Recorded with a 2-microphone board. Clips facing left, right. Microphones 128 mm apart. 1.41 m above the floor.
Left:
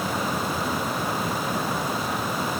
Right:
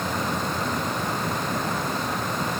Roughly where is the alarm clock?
I don't hear an alarm clock.